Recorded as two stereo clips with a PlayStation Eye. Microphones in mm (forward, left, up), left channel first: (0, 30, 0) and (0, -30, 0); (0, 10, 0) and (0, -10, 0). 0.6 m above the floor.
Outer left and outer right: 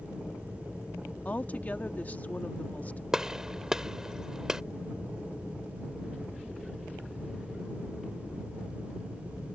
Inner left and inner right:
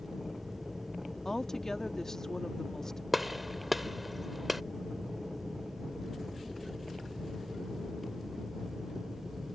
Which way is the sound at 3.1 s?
10° right (ahead or behind).